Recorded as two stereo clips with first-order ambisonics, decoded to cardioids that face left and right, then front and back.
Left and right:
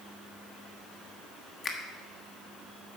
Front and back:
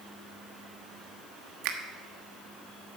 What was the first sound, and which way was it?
A finger snap, 160° left.